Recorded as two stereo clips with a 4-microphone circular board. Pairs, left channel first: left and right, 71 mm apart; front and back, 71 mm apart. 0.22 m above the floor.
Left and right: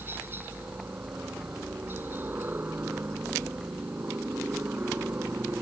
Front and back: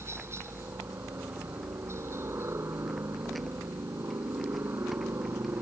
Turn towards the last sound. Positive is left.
turn(degrees=-140)